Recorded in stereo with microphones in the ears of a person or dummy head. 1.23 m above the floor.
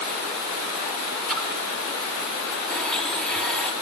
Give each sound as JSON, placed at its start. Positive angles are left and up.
{"t": 1.3, "sound": "a splash", "side_deg": 0, "distance_m": 3.5}
{"t": 2.7, "sound": "a blender", "side_deg": 5, "distance_m": 0.7}